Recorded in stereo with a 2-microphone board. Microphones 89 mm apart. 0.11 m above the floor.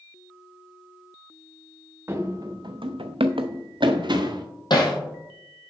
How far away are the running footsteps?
About 0.7 m.